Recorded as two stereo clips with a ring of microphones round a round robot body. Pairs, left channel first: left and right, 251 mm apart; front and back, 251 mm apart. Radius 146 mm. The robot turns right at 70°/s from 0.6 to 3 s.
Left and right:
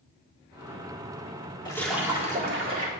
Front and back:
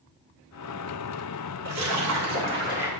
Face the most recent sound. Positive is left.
turn(degrees=-105)